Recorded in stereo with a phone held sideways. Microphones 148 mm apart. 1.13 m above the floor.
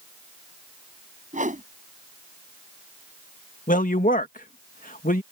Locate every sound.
1.3 s a whoosh: 60° right (ahead or behind)
3.7 s a woman speaking: 70° left (ahead or behind)